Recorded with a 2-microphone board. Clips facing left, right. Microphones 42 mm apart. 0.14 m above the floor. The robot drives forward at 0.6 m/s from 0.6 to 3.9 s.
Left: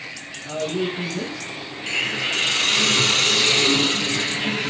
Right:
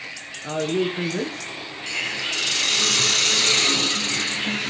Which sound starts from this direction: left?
A hiss, at 1.9 s.